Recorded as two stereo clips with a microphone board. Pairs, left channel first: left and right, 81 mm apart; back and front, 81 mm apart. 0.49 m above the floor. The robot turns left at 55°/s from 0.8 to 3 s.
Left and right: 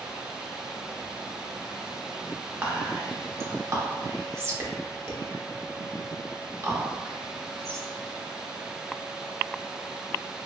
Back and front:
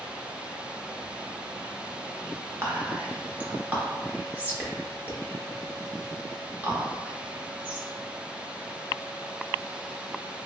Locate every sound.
2.6 s whispering: 35° right, 0.9 m; by 7.9 s 60° right, 0.9 m